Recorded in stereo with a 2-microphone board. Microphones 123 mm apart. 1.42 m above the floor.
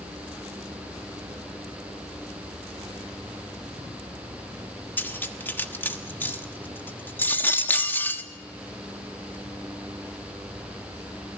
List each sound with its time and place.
5.0 s cutlery clinking: 15° left (ahead or behind), 1.3 m